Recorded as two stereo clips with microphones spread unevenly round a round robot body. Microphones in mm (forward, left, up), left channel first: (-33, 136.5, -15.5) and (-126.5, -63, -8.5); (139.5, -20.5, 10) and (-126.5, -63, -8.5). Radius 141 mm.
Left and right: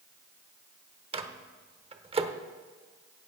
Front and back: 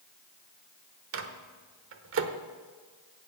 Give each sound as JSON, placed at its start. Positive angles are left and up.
{"t": 1.1, "sound": "a microwave", "azimuth_deg": -175, "distance_m": 1.0}